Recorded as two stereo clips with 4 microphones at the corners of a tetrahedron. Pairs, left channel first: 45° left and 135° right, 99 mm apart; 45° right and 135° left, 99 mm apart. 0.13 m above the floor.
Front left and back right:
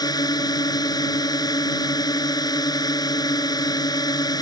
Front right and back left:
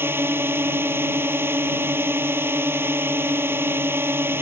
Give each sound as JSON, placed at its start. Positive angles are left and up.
{"t": 0.0, "sound": "a drone", "azimuth_deg": 75}